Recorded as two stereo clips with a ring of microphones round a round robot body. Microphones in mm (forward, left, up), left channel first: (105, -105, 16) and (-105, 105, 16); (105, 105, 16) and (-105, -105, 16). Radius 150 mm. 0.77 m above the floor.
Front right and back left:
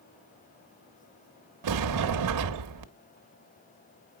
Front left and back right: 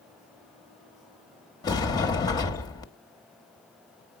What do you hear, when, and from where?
1.6 s a sliding door: 120° left, 1.0 m